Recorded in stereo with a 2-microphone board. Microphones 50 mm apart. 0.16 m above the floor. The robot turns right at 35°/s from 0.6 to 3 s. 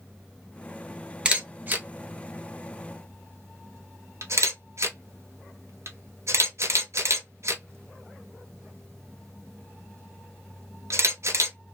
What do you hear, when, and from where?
1.2 s a camera shutter: 20° right (ahead or behind), 1.0 m; by 11.6 s 70° right (ahead or behind), 1.0 m